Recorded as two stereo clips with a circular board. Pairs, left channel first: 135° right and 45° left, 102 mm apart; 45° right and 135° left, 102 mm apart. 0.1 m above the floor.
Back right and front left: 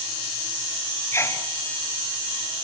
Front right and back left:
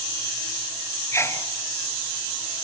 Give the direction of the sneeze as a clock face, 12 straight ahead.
3 o'clock.